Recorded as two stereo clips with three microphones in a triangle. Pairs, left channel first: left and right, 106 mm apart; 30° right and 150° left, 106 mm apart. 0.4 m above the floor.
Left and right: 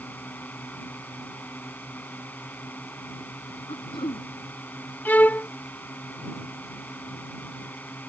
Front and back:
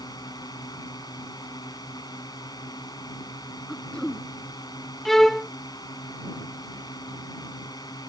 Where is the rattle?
I don't hear a rattle.